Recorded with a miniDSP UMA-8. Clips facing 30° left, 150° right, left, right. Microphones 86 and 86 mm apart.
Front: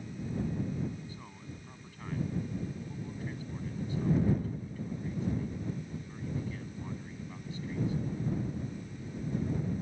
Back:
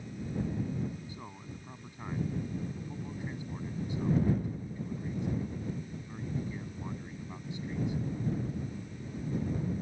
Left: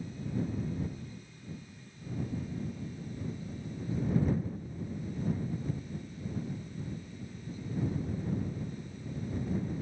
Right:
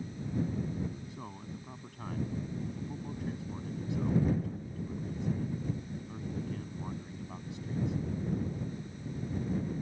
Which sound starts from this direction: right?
A man speaking, at 1.1 s.